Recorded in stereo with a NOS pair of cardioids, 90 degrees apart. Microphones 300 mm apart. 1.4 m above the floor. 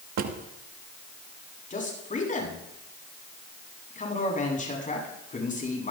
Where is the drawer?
65° right, 1.6 m.